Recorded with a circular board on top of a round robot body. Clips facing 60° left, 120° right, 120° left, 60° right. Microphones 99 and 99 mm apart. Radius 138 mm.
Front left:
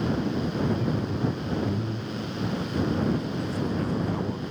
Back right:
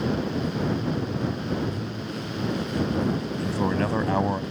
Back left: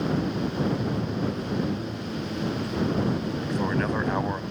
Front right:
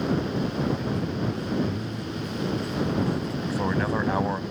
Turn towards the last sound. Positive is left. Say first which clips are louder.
# back right 3 dB, front right 1 dB
turn(degrees=-145)